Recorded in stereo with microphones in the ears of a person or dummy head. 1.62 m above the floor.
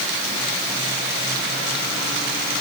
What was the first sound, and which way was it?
Only background noise.